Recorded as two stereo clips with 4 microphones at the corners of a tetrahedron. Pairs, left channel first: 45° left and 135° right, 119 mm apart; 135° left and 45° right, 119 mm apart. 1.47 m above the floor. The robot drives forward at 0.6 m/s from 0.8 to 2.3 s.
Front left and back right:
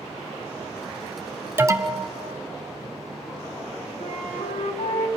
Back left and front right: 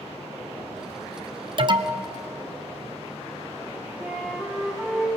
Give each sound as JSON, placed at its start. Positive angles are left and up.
{"t": 1.6, "sound": "an alarm", "azimuth_deg": -70, "distance_m": 1.0}
{"t": 4.0, "sound": "a flute", "azimuth_deg": 35, "distance_m": 3.0}